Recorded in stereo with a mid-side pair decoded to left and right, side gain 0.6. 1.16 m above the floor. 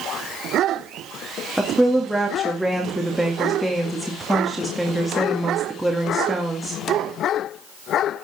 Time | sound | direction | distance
1.6 | a woman speaking | straight ahead | 2 m